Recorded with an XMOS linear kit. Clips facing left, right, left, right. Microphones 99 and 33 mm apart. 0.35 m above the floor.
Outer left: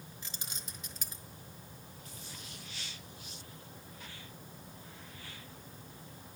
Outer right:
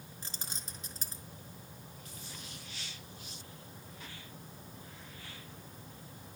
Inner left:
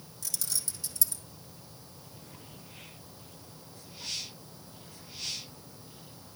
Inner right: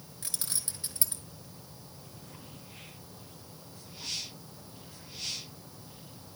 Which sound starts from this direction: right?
Keys jangling, at 0.2 s.